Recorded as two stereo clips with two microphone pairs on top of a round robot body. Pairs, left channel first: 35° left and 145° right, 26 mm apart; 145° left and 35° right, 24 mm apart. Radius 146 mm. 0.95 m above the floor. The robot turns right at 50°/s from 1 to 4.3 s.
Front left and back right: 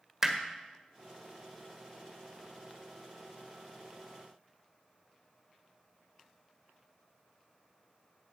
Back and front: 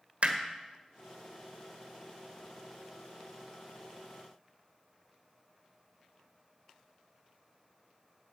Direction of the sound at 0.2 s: 60° right.